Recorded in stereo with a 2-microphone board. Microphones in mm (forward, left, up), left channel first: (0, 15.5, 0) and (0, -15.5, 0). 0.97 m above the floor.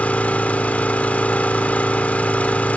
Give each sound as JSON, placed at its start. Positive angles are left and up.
{"t": 0.0, "sound": "an engine running", "side_deg": 60, "distance_m": 2.5}